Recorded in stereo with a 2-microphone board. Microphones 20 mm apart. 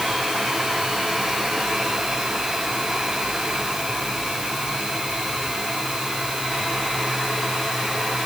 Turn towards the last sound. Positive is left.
No sound to turn to.